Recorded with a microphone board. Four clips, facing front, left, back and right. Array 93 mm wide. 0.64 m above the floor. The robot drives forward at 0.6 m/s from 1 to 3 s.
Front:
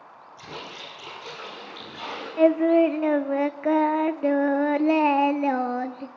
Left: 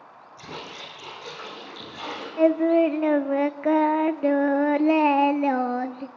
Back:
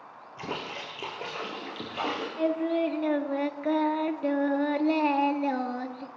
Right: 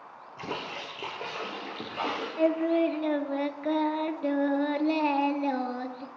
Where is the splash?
135° right, 5 m; by 2.3 s 145° right, 5.5 m.